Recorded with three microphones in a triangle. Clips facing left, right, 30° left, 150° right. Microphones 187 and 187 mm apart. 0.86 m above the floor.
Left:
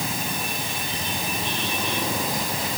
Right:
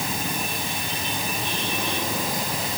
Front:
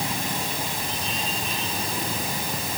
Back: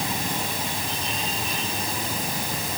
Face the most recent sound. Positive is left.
No sound to turn to.